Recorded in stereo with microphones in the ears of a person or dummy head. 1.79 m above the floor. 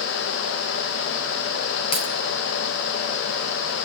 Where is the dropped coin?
30° left (ahead or behind), 5 m.